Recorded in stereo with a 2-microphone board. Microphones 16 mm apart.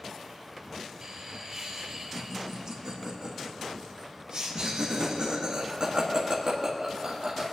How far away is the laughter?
About 2.5 m.